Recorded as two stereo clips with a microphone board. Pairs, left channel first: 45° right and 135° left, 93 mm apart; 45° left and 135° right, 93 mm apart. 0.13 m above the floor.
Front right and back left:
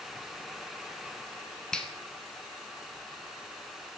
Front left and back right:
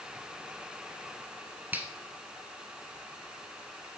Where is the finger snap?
110° right, 0.8 m.